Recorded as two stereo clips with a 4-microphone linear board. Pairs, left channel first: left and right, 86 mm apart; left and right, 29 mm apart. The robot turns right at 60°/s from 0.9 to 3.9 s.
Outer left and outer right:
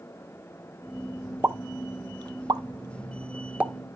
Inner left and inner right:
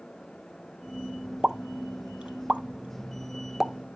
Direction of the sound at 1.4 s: 20° right (ahead or behind).